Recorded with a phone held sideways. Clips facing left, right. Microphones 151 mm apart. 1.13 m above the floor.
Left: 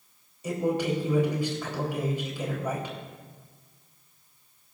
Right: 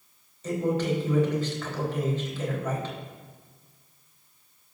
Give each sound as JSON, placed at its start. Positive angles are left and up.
{"t": 0.4, "sound": "a man speaking", "side_deg": 10, "distance_m": 4.0}